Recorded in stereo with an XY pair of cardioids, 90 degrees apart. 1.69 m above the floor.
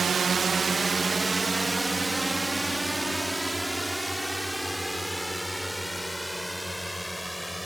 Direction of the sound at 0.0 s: 55° right.